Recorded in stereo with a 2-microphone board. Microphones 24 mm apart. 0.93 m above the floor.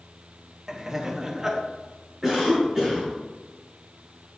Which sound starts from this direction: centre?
Laughter, at 0.7 s.